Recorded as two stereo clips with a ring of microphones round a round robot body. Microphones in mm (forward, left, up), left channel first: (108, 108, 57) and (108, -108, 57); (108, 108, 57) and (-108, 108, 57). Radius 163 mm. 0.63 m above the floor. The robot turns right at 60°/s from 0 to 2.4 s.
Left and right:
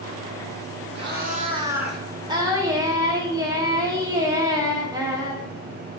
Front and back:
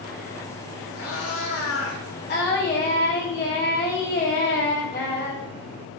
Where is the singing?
25° right, 1.8 m; by 5.4 s 20° right, 1.8 m.